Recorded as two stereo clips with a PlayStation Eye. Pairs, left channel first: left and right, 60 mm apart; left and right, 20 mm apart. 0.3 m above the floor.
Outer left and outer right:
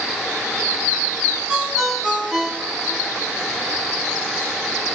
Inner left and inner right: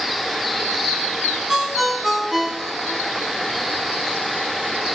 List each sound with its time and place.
1.5 s a ringtone: centre (ahead or behind), 2.5 m